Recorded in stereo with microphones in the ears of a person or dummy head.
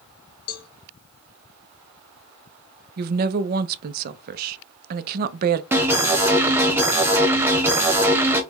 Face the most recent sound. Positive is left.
turn(degrees=-15)  # may be behind; listen again after turning